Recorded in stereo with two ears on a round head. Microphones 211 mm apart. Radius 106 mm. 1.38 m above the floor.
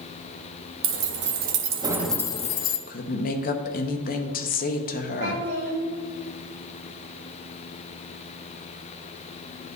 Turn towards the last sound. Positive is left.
turn(degrees=-35)  # may be behind; listen again after turning